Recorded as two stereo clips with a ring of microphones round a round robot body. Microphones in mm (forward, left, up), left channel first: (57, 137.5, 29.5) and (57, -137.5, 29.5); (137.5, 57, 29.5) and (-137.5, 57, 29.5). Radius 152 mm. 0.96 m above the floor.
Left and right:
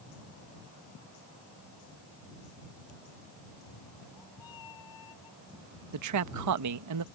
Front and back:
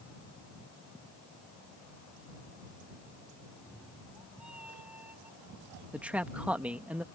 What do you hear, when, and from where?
3.5 s a cat meowing: 90° left; by 5.8 s 95° left
5.9 s a man speaking: 95° right